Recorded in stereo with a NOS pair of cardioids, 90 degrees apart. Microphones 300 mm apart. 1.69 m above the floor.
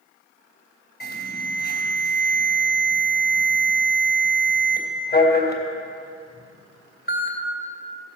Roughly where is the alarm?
Ahead left.